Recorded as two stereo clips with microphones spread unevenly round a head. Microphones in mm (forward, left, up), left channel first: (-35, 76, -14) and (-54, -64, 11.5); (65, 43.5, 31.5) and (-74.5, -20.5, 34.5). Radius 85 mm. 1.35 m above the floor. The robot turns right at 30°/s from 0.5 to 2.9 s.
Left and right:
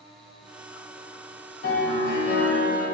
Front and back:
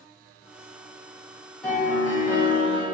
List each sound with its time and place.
1.6 s a piano: 110° left, 1.3 m; by 2.9 s 150° left, 1.3 m